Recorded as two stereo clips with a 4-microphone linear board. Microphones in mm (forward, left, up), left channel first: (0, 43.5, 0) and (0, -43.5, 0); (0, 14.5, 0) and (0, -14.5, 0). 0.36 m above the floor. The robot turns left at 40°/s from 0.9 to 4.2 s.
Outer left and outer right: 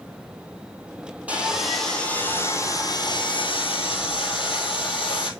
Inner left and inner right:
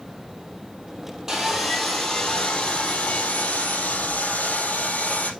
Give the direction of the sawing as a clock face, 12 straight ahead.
5 o'clock.